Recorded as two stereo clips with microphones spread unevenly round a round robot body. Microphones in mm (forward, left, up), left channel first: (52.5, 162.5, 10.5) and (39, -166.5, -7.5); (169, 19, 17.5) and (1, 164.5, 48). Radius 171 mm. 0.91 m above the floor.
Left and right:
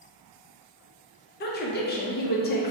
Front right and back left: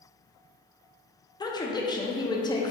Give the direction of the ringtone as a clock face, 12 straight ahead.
I don't hear a ringtone.